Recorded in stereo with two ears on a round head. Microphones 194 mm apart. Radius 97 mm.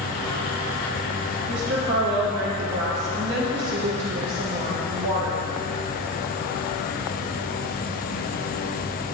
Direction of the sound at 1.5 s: 60° right (ahead or behind).